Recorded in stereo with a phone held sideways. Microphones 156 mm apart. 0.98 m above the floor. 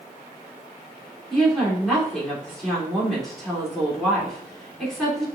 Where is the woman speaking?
5° left (ahead or behind), 2.5 m.